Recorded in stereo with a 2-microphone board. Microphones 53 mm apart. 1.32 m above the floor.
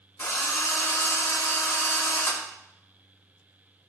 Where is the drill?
50° left (ahead or behind), 3 m.